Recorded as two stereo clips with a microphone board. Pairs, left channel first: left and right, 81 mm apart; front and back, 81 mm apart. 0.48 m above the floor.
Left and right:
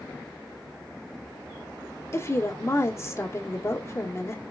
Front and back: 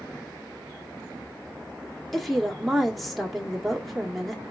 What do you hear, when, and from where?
2.1 s a woman speaking: 85° left, 1.5 m